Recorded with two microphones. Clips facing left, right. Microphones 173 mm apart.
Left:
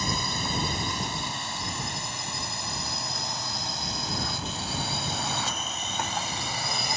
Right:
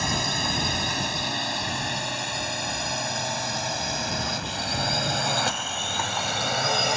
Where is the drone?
70° right (ahead or behind).